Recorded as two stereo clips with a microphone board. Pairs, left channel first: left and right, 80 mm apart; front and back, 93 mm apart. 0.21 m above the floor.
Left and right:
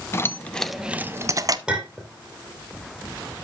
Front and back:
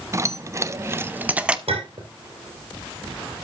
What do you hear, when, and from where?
0.1 s keys jangling: 135° left, 1.0 m; by 1.6 s 105° right, 1.0 m
1.7 s a clink: 175° right, 4.5 m